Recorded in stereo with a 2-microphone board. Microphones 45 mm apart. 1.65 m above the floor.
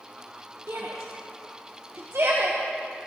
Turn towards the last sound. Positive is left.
turn(degrees=-70)  # may be behind; listen again after turning